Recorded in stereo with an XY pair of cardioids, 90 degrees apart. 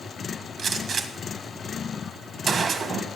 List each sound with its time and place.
0.6 s a gunshot: 55° right, 1.6 m